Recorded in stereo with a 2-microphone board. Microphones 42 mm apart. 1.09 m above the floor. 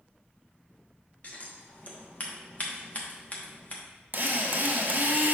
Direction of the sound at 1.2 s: 35° left (ahead or behind).